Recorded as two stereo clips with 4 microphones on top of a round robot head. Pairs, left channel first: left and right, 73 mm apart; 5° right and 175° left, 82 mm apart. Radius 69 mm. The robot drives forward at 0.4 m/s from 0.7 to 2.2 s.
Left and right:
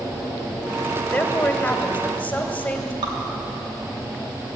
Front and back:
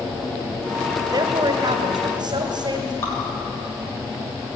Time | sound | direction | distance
1.1 | a woman speaking | 160° left | 1.9 m
3.0 | dripping | 75° right | 4 m